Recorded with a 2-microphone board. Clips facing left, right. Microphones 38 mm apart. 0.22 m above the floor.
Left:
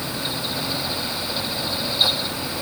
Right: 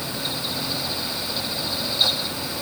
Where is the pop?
I don't hear a pop.